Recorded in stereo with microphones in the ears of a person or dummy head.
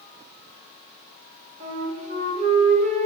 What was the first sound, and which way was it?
A flute, 35° right (ahead or behind).